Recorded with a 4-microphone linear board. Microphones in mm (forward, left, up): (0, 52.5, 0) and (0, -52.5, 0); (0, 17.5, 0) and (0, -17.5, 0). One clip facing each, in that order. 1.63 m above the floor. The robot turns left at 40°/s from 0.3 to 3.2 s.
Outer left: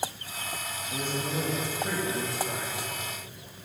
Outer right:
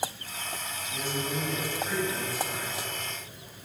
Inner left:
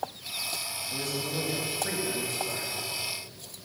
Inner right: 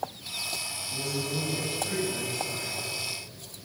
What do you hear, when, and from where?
0.9 s a man speaking: 130° left, 3 m; by 2.7 s 60° left, 3 m